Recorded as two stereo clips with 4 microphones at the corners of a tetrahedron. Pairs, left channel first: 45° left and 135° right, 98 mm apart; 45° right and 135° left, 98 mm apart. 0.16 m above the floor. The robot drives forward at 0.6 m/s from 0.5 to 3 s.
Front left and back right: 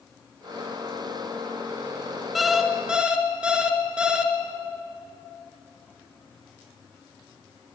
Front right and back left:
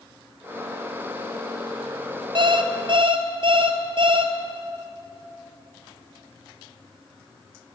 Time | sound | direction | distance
2.4 | an alarm clock | 135° left | 1.5 m